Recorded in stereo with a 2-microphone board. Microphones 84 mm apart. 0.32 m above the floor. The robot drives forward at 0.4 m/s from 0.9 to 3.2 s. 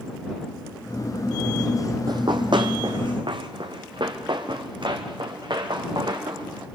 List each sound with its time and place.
2.1 s running footsteps: 60° right (ahead or behind), 0.8 m; by 6.7 s 70° right (ahead or behind), 4.5 m